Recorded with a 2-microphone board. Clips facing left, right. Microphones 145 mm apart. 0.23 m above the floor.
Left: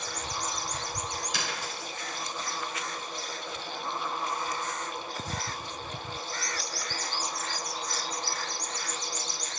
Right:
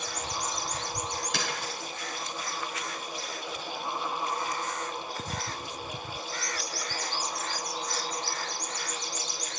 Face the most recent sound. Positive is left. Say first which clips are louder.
# right 2 dB
turn(degrees=-60)  # may be behind; listen again after turning